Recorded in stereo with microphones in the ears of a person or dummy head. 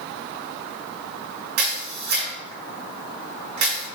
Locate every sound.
1.6 s a camera shutter: 65° right (ahead or behind), 3.5 m